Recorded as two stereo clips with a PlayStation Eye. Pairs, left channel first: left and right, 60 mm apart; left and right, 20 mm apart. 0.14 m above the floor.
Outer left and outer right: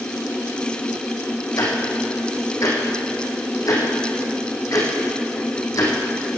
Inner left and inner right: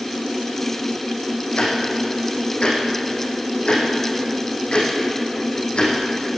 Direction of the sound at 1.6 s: 60° left (ahead or behind).